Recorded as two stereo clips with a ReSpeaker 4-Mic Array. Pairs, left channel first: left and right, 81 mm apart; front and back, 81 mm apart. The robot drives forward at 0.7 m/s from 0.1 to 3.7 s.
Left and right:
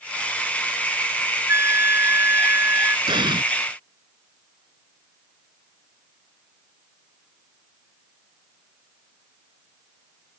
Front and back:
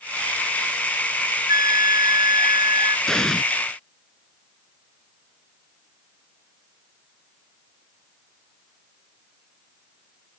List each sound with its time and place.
1.5 s a flute: 145° right; by 3.0 s 150° right
3.1 s an explosion: 85° right; by 3.4 s 90° right